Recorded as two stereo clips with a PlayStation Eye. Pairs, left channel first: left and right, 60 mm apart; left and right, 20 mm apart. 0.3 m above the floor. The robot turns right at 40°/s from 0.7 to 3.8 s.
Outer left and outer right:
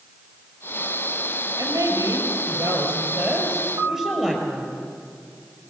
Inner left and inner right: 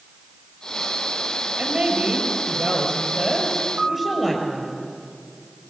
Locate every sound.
1.6 s a woman speaking: 100° right, 6 m; by 4.8 s 10° right, 6 m
3.8 s a piano: 85° right, 3 m